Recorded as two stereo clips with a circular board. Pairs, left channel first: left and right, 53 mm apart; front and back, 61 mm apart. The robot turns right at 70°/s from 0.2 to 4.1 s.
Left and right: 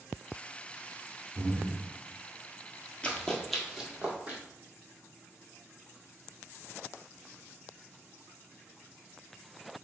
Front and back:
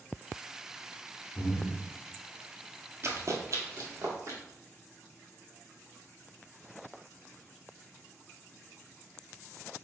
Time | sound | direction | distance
1.4 | breathing | 35° right | 1.2 m
3.0 | running footsteps | 150° left | 1.0 m